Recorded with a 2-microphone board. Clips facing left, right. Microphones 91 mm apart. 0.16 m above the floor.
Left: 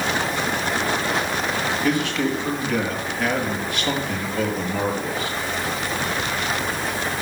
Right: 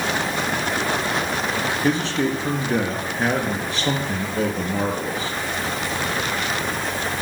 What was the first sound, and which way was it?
A man speaking, 35° right (ahead or behind).